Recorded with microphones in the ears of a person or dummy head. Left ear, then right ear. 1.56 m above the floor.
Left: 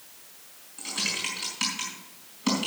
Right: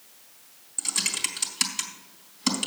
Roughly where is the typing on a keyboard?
Right.